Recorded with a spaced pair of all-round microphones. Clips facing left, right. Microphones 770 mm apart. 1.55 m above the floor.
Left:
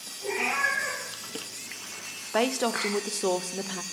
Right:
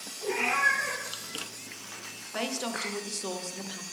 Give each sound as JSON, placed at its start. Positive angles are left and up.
{"t": 0.2, "sound": "a cat meowing", "side_deg": 15, "distance_m": 4.5}
{"t": 2.3, "sound": "a woman speaking", "side_deg": 75, "distance_m": 0.7}